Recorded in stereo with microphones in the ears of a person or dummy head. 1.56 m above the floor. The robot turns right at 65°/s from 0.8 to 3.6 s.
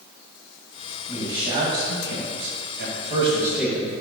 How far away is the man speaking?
About 2 m.